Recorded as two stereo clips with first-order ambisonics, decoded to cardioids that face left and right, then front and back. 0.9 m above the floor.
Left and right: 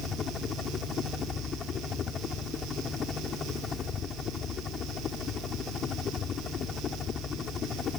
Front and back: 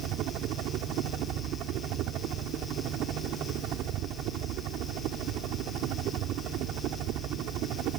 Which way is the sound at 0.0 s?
150° left.